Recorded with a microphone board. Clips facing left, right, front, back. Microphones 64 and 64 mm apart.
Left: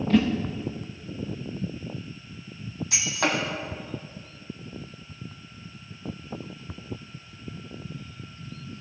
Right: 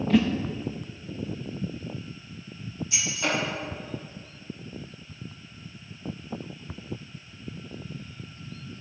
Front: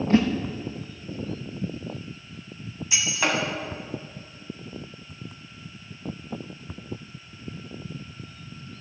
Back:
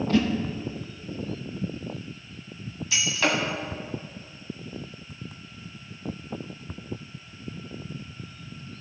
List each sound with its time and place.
0.1 s a whoosh: 5° right, 1.0 m
2.9 s breaking glass: 80° left, 2.5 m